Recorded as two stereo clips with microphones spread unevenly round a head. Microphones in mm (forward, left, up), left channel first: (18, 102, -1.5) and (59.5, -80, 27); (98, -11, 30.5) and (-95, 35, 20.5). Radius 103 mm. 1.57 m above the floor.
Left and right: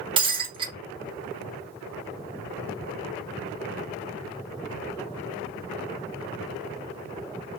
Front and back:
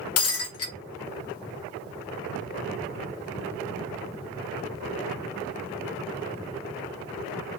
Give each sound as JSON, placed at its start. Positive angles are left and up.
{"t": 0.2, "sound": "breaking glass", "azimuth_deg": -20, "distance_m": 1.7}